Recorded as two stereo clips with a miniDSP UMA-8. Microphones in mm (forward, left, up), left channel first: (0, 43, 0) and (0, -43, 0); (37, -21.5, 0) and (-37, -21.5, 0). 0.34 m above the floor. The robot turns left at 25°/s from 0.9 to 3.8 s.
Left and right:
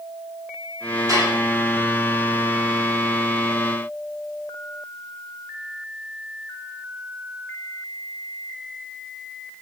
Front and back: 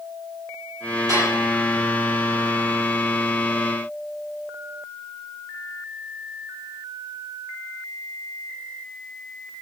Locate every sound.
1.1 s dishes clattering: 140° right, 7 m; by 1.4 s 145° right, 7 m